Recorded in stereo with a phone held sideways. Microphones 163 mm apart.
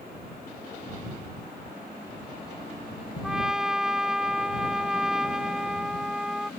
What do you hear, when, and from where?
3.2 s a trumpet: 5° right (ahead or behind)